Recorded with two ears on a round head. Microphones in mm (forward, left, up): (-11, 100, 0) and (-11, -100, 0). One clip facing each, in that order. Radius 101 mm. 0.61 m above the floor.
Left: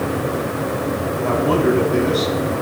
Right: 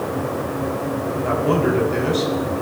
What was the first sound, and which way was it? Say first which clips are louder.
A man speaking: left 3 dB; 30° right (ahead or behind).